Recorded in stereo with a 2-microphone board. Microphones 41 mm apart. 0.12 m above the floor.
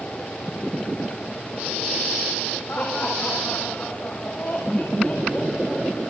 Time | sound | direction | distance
2.7 | laughter | 45° left (ahead or behind) | 6.5 m